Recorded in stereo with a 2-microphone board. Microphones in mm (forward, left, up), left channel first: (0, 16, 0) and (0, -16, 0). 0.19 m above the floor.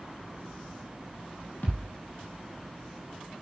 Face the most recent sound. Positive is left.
turn(degrees=65)  # may be behind; listen again after turning